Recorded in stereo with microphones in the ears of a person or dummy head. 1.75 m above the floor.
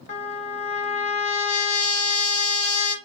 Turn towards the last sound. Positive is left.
turn(degrees=35)  # may be behind; listen again after turning